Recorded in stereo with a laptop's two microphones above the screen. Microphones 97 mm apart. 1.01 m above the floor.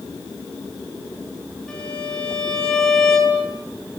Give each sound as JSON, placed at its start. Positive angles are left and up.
{"t": 1.7, "sound": "a violin", "side_deg": 10, "distance_m": 5.0}